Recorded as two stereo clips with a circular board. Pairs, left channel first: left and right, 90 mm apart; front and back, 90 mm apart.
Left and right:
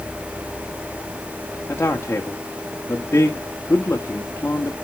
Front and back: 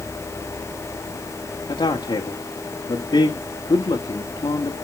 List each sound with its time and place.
1.7 s a man speaking: 25° left, 1.5 m